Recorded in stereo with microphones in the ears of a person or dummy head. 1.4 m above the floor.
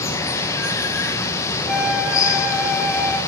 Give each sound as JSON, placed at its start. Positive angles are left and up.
{"t": 0.0, "sound": "running water", "side_deg": 20, "distance_m": 0.7}
{"t": 1.7, "sound": "a flute", "side_deg": 0, "distance_m": 0.9}